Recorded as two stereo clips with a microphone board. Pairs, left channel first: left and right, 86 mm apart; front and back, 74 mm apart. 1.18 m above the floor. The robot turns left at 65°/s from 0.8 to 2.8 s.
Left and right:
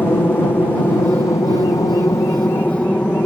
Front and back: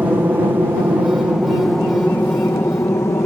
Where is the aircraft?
135° left; by 3.3 s 25° left.